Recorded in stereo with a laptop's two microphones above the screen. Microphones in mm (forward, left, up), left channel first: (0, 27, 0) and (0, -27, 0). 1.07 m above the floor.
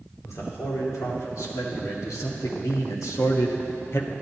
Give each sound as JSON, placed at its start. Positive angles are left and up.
{"t": 0.2, "sound": "a man speaking", "side_deg": 75, "distance_m": 2.5}